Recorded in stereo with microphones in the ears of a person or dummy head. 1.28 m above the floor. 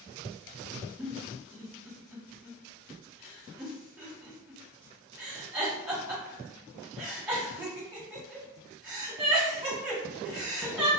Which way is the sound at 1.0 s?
5° right (ahead or behind).